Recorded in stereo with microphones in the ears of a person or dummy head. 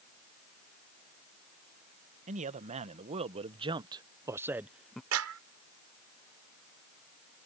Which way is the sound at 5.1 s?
80° right.